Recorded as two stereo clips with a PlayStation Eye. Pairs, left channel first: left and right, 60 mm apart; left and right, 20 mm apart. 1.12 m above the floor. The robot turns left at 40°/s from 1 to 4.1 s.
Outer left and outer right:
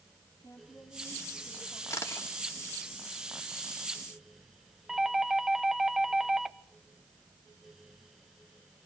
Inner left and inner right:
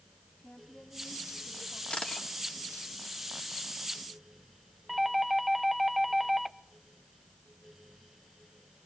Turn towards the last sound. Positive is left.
turn(degrees=-5)  # may be behind; listen again after turning